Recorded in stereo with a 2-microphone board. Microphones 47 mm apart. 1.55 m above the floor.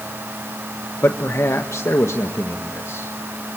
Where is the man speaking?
65° left (ahead or behind), 1.3 m; by 3.1 s 80° left, 2 m.